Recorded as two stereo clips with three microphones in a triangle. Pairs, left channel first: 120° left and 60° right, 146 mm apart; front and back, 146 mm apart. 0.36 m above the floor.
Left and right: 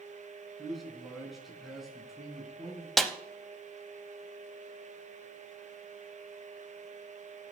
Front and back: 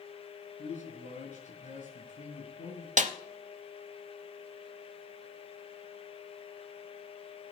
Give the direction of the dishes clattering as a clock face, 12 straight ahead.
No dishes clattering in this recording.